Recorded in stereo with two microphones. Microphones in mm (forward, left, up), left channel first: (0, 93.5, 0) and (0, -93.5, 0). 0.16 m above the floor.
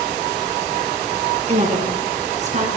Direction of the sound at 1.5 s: 35° right (ahead or behind).